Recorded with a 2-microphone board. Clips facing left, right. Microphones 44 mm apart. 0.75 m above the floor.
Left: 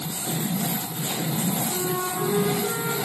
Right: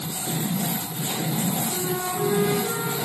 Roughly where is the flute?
Centre.